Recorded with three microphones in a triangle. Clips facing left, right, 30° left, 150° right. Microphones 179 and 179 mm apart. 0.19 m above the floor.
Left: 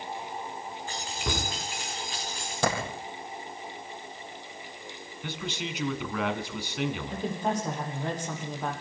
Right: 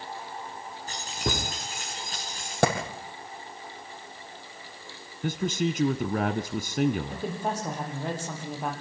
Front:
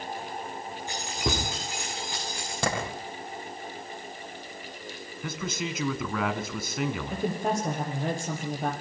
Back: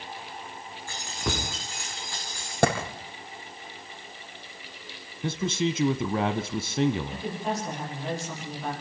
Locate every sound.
0.9 s keys jangling: 40° right, 9.5 m
2.6 s a clap: 120° right, 5.5 m
5.2 s a man speaking: 105° right, 1.4 m
7.1 s a woman speaking: 10° right, 7.5 m